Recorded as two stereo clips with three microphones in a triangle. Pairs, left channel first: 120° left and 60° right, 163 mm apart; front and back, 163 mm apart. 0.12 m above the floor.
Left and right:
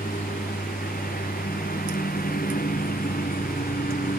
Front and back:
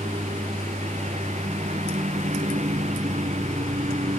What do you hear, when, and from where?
0.0 s a lawn mower: 140° left